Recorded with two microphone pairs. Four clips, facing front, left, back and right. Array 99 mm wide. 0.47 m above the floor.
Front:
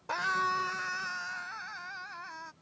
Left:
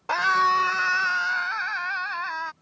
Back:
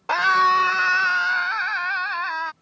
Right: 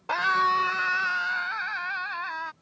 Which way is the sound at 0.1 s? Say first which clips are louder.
Left 3 dB, back 13 dB; 165° left.